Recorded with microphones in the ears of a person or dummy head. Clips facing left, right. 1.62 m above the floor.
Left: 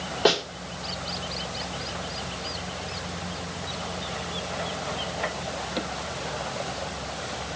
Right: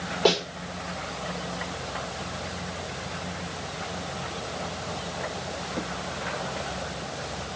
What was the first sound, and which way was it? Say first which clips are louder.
A snare drum: even; 10° left (ahead or behind).